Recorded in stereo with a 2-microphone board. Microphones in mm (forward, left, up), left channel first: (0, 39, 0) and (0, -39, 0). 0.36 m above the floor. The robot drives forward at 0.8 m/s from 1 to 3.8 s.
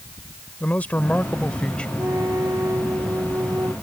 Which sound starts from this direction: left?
A man speaking, at 0.6 s.